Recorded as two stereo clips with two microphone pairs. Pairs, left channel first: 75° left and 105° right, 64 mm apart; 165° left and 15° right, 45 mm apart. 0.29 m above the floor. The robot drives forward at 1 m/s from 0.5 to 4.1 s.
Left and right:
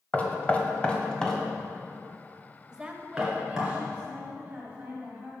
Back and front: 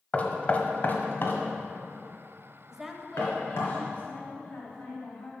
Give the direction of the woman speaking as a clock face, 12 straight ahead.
2 o'clock.